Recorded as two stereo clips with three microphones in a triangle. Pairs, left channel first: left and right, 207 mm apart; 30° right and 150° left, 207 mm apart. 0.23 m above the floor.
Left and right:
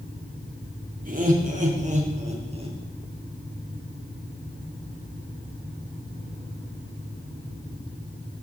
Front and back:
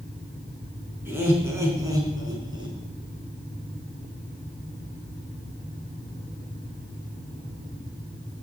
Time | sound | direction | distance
1.1 | laughter | 130° right | 3.5 m